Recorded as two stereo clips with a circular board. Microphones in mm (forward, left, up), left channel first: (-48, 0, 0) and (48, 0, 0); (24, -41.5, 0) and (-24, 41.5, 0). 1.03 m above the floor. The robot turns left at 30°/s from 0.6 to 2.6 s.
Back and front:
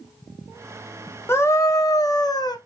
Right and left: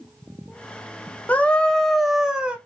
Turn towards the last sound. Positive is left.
turn(degrees=-165)